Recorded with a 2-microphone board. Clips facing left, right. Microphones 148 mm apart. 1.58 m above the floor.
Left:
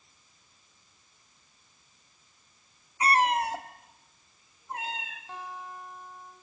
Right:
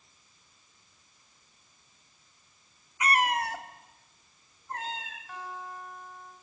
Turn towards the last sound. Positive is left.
turn(degrees=25)  # may be behind; listen again after turning